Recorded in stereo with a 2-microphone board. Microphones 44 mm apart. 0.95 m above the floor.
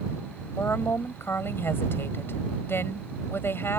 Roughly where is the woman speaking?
Left.